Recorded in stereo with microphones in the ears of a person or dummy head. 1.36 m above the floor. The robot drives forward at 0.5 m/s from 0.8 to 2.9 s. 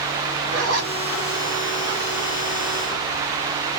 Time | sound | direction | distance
0.5 | a zipper | 80° right | 2 m